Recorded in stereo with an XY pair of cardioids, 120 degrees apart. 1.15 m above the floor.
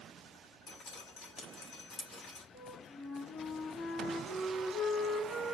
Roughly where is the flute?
Ahead left.